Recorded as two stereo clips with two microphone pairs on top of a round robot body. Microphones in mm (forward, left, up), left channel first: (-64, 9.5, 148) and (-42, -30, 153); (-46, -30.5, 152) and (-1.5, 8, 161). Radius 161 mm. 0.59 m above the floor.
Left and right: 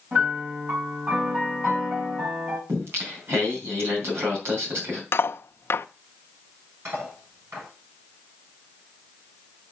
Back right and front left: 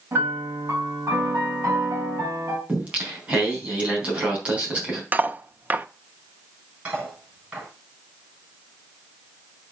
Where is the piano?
10° right, 6.5 m.